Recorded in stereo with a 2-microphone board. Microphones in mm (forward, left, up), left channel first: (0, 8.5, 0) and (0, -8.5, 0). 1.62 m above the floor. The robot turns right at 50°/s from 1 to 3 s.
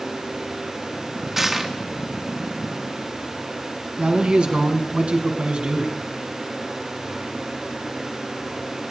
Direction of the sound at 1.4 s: 20° right (ahead or behind).